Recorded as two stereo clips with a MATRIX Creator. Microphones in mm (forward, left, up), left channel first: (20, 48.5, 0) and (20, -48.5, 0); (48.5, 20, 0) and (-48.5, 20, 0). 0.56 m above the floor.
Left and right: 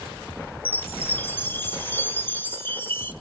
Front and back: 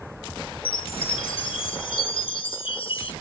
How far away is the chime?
About 1.0 m.